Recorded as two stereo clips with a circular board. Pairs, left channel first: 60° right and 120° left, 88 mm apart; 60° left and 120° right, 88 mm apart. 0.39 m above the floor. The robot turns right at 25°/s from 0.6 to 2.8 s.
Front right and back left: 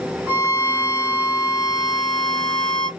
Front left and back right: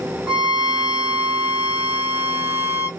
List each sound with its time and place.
0.3 s a violin: 165° left, 0.6 m; by 2.9 s 140° right, 0.6 m